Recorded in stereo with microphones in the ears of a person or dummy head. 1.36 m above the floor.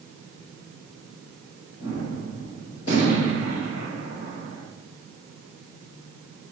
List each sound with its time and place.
1.8 s a gunshot: 80° left, 2.5 m